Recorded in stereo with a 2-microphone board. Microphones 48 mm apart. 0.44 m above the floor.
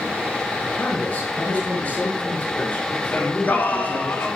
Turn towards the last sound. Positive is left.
turn(degrees=45)  # may be behind; listen again after turning